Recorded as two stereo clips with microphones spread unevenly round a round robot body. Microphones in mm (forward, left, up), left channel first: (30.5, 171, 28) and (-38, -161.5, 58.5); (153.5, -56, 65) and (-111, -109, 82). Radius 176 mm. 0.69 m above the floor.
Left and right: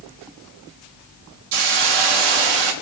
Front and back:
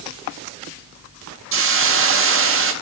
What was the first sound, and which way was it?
A hiss, 120° right.